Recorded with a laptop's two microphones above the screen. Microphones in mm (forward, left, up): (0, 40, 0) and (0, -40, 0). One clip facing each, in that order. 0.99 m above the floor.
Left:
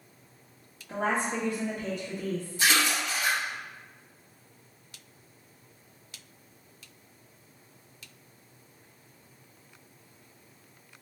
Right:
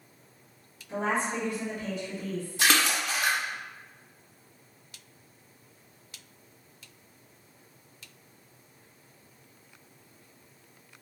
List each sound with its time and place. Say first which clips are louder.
0.9 s a woman speaking: even; 45° left (ahead or behind), 1.2 m
2.6 s a splash: right 1 dB; 60° right (ahead or behind), 0.6 m